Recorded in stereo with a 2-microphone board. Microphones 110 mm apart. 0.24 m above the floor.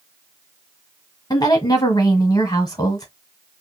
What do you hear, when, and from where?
1.3 s a woman speaking: 35° left (ahead or behind), 1.2 m